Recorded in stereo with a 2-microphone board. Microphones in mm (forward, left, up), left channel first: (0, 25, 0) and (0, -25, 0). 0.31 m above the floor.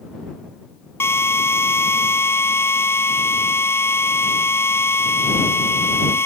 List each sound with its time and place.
1.0 s a drill: 55° left (ahead or behind)